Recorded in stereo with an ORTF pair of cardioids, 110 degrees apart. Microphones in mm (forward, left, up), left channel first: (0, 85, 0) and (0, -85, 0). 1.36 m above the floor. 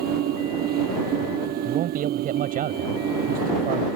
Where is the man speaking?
55° right.